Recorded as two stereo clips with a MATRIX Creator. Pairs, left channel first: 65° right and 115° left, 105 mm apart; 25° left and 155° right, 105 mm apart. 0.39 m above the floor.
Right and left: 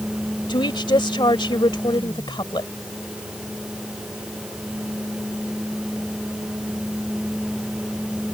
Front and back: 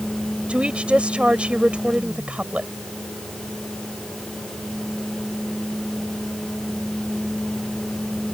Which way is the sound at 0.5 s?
80° right.